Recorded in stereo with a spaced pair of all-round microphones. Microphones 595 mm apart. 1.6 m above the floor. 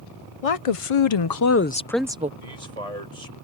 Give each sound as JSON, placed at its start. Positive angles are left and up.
{"t": 0.4, "sound": "a woman speaking", "side_deg": 70}
{"t": 2.4, "sound": "a man speaking", "side_deg": -85}